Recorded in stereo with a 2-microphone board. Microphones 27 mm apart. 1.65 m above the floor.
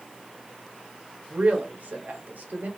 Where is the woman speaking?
75° right (ahead or behind), 1.4 m.